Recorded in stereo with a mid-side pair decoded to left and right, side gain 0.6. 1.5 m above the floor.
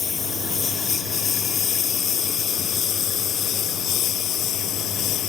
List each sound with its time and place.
0.0 s a lawn mower: 30° left; by 5.3 s 60° left